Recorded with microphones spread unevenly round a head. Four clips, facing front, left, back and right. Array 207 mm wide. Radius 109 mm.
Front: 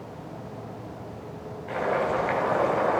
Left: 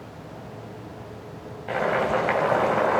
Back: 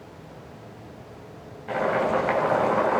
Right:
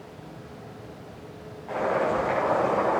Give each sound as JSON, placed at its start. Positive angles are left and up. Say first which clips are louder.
{"t": 1.7, "sound": "boiling", "louder": "left 1 dB, back 2 dB", "azimuth_deg": 80, "distance_m": 4.0}